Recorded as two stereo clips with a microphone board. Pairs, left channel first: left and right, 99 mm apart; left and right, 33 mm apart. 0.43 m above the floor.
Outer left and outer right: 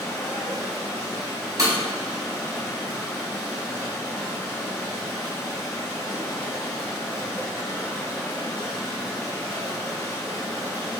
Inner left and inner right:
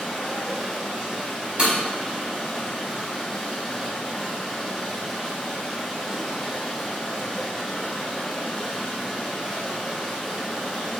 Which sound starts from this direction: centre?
Running water, at 0.0 s.